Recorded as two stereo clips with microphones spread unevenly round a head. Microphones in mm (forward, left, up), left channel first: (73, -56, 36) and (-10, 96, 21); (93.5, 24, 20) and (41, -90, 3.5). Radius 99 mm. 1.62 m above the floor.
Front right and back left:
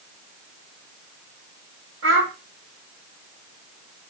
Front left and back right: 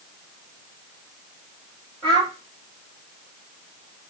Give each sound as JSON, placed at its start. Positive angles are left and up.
{"t": 2.0, "sound": "a child speaking", "azimuth_deg": 145, "distance_m": 0.9}